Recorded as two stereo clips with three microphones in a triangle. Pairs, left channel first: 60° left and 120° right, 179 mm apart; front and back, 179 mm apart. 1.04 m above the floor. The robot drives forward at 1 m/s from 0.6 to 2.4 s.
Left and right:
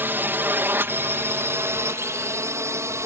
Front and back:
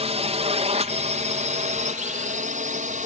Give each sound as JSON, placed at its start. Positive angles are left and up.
{"t": 0.0, "sound": "a drone", "azimuth_deg": 170}